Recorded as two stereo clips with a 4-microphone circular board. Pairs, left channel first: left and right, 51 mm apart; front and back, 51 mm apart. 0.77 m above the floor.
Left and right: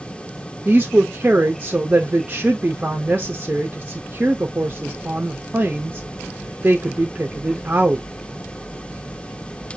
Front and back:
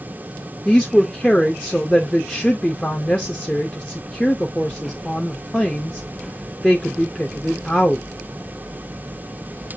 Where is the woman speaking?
60° right, 0.6 m.